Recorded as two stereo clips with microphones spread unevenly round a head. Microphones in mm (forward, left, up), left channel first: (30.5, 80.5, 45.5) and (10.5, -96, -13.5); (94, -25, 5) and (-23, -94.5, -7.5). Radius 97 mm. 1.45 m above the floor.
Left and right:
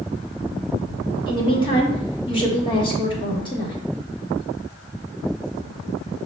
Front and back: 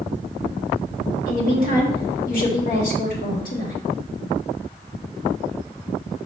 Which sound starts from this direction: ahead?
A woman speaking, at 1.3 s.